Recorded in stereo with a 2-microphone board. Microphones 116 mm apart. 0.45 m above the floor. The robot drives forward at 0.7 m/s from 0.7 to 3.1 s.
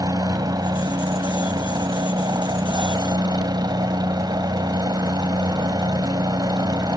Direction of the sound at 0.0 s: 35° right (ahead or behind).